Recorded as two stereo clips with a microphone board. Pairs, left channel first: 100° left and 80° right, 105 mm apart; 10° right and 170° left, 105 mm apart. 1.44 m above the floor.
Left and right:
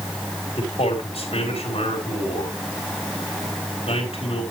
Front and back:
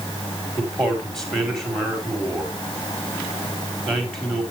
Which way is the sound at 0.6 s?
75° left.